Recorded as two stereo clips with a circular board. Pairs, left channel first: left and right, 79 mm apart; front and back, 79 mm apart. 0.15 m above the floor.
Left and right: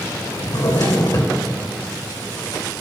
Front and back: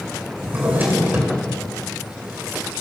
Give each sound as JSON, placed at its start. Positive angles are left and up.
{"t": 0.4, "sound": "a drawer", "azimuth_deg": 120, "distance_m": 3.0}